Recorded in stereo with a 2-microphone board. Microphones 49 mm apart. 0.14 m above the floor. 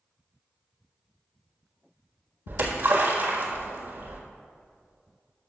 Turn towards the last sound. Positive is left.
turn(degrees=-45)  # may be behind; listen again after turning